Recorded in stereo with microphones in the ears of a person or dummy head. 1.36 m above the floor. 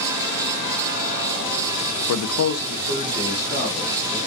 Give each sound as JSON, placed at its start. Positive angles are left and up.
{"t": 2.1, "sound": "a man speaking", "side_deg": 65, "distance_m": 0.5}